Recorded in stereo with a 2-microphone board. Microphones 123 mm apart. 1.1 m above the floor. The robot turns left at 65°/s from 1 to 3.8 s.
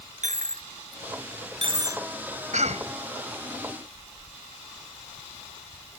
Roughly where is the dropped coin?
Right.